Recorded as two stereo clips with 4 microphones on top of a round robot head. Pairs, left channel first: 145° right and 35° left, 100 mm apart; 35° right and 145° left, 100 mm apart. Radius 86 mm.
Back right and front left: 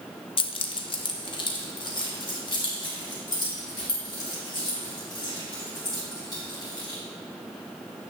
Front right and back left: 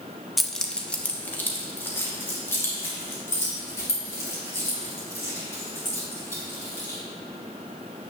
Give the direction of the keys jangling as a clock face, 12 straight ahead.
4 o'clock.